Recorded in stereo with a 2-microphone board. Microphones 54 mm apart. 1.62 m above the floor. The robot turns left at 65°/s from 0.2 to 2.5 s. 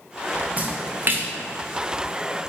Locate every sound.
0.6 s a splash: 35° right (ahead or behind), 0.9 m; by 1.3 s 40° right (ahead or behind), 0.9 m